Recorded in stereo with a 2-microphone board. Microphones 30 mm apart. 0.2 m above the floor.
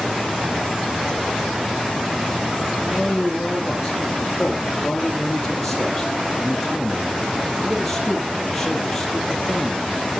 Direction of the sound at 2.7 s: 10° left (ahead or behind).